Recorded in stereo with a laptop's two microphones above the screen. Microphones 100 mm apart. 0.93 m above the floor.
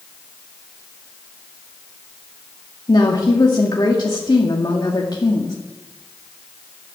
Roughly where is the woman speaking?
Left.